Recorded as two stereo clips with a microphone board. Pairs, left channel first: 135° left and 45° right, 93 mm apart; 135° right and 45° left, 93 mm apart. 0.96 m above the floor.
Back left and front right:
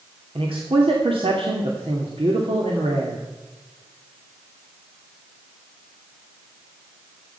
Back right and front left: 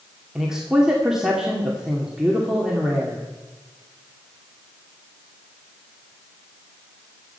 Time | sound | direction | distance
0.3 | a man speaking | 40° right | 2.5 m